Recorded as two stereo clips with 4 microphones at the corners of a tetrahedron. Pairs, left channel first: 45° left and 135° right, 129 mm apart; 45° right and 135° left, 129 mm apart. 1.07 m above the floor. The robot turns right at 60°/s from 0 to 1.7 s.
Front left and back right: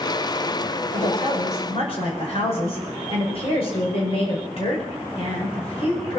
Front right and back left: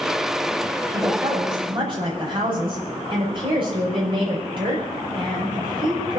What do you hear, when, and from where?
0.9 s a woman speaking: 40° left, 5.5 m; by 6.2 s 85° left, 5.5 m